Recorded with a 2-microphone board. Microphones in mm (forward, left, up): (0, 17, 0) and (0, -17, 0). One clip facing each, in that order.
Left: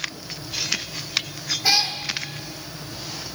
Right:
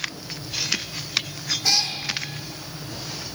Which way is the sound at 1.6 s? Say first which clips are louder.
Left 3 dB; 15° left (ahead or behind).